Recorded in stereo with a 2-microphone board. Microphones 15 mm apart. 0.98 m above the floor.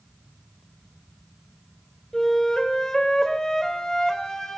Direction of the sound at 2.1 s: 40° left (ahead or behind).